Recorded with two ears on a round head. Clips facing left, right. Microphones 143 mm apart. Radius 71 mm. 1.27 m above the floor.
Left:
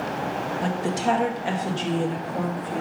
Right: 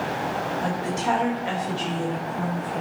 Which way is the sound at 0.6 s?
30° left (ahead or behind).